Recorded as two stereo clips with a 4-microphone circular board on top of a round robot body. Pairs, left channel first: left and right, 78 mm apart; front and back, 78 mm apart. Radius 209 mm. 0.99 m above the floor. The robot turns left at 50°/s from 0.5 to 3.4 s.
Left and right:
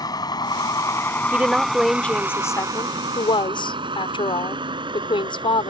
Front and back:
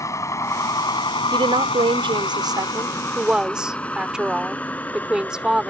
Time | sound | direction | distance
0.0 | a vehicle | 50° left | ?
1.3 | a woman speaking | 155° right | ?